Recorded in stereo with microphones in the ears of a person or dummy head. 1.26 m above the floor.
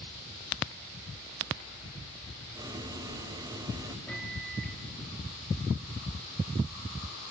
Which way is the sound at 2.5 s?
15° right (ahead or behind).